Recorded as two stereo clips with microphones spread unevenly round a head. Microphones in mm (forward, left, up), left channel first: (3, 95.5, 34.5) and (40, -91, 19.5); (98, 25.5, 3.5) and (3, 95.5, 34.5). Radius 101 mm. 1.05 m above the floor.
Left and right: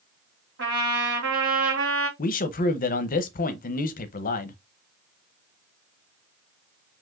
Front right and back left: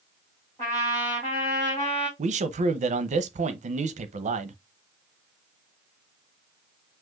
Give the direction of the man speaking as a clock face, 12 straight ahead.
7 o'clock.